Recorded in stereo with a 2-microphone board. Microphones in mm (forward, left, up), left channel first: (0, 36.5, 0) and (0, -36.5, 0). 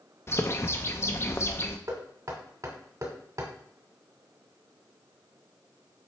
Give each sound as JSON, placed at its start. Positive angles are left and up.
{"t": 0.3, "sound": "a bird", "side_deg": 35, "distance_m": 0.7}
{"t": 1.9, "sound": "knocking", "side_deg": -50, "distance_m": 2.0}